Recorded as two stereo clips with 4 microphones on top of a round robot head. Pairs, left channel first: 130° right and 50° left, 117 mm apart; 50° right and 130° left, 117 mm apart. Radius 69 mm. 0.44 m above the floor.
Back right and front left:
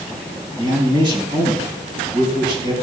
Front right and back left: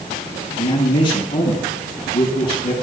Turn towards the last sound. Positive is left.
turn(degrees=0)